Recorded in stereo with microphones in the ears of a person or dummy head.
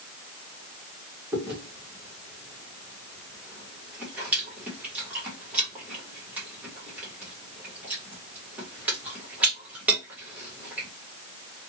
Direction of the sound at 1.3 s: 10° right (ahead or behind).